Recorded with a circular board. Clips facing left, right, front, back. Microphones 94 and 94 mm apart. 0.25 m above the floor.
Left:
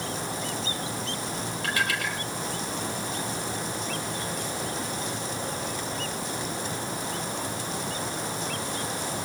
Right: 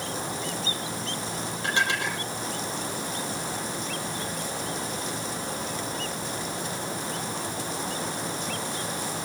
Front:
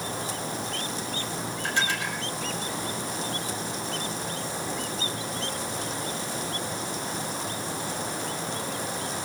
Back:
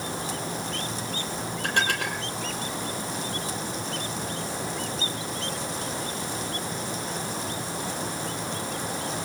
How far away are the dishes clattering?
About 5 m.